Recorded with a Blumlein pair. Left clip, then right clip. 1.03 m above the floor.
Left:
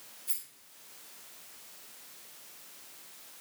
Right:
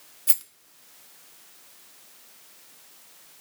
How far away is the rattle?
About 0.7 m.